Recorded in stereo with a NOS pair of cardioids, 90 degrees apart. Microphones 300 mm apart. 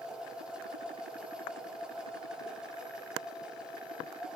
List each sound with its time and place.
0.0 s a machine running: 5° right, 4 m